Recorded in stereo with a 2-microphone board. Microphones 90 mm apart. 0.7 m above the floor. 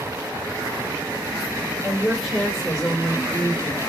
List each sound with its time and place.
1.8 s a woman speaking: centre (ahead or behind), 3 m; by 3.8 s 25° left (ahead or behind), 1.5 m